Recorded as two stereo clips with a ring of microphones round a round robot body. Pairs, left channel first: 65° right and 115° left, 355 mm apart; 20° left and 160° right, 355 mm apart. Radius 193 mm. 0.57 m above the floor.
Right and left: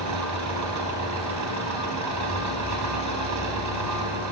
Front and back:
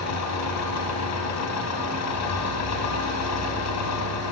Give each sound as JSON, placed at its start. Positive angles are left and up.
{"t": 0.0, "sound": "an engine running", "azimuth_deg": 70, "distance_m": 4.0}